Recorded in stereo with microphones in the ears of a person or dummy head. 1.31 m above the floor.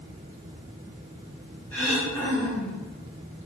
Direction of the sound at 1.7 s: 10° left (ahead or behind).